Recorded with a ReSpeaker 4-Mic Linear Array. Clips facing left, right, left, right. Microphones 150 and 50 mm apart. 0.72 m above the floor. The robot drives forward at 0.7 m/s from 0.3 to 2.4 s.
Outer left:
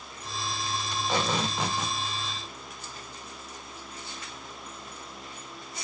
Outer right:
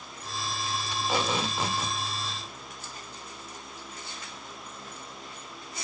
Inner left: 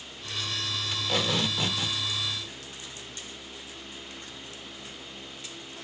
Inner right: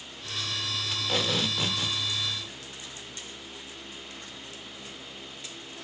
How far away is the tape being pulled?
About 1.7 m.